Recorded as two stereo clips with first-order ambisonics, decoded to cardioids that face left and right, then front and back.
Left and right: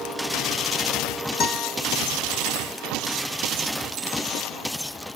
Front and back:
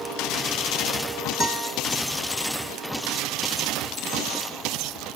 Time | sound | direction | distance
1.4 | a guitar | 80° left | 1.2 m